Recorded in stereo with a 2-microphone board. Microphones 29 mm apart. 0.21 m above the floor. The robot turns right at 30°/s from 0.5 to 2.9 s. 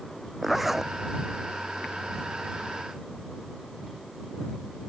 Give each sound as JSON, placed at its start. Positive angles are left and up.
{"t": 0.4, "sound": "a zipper", "side_deg": -5}